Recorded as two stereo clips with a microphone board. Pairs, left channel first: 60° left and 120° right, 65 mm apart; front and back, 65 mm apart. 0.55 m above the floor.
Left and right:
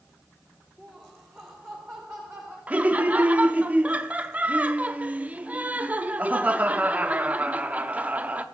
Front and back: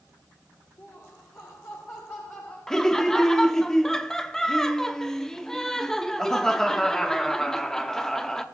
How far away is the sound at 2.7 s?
About 0.6 m.